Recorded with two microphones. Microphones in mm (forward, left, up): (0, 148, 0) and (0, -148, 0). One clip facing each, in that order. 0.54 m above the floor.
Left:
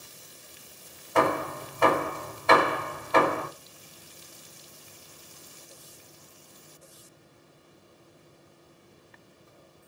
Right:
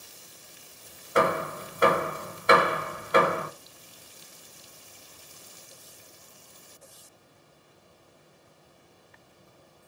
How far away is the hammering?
About 1.1 m.